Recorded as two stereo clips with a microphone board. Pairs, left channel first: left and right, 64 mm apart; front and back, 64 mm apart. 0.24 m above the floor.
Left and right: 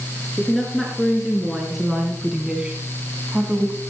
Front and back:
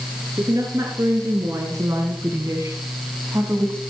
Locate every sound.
0.4 s a woman speaking: straight behind, 3.5 m; by 3.8 s 145° right, 2.0 m